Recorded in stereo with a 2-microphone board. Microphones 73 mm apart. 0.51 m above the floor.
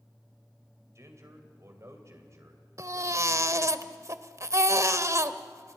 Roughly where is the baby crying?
Right.